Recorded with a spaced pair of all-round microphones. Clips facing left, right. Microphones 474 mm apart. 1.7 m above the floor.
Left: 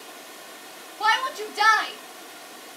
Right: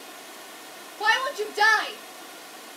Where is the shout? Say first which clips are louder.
Right 2 dB; 25° left (ahead or behind), 0.6 m.